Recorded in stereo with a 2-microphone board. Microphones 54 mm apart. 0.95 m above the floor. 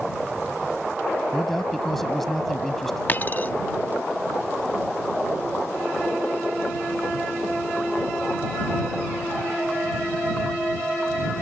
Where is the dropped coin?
35° left (ahead or behind).